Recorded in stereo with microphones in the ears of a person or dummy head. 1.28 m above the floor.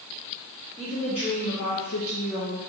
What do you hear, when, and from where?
0.8 s a woman speaking: 20° left (ahead or behind), 1.2 m; by 2.6 s 40° left (ahead or behind), 0.9 m